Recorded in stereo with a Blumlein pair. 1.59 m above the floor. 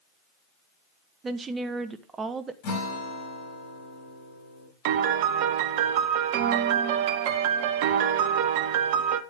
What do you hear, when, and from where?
1.2 s a woman speaking: 20° right, 0.9 m
2.6 s a guitar: 45° left, 4 m
4.8 s a piano: 50° right, 0.9 m